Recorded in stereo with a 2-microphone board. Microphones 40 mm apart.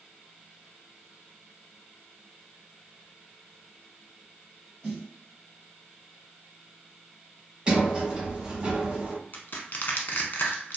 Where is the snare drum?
15° left (ahead or behind), 1.9 m.